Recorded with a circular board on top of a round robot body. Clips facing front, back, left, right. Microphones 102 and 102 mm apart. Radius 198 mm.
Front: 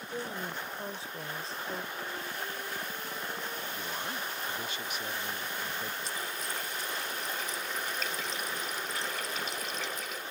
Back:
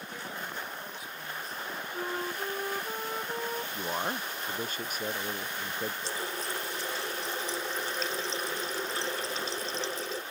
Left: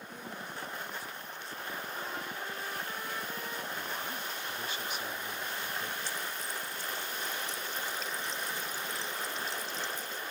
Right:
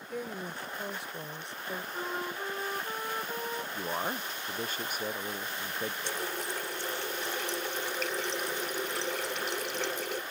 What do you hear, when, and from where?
0.1 s a woman speaking: 60° right
1.9 s a flute: 150° right
3.7 s a man speaking: 135° right
6.0 s a running tap: 120° right